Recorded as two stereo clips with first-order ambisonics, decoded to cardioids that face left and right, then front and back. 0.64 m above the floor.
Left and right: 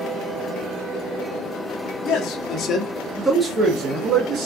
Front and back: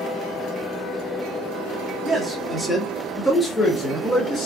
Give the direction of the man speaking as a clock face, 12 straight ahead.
9 o'clock.